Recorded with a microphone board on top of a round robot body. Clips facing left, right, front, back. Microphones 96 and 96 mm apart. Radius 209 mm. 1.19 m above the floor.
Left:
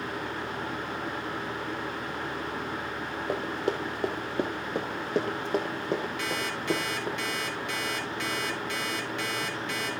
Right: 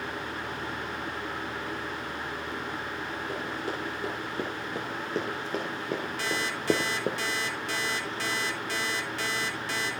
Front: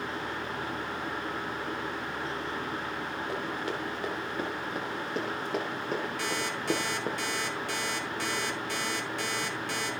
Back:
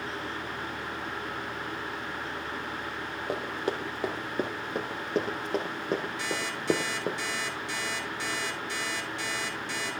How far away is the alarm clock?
About 2.5 m.